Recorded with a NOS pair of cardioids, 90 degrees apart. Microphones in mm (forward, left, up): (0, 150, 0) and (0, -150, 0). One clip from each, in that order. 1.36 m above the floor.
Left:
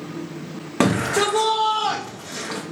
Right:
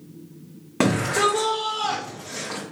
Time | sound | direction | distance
0.8 | a shout | 10° left | 0.5 m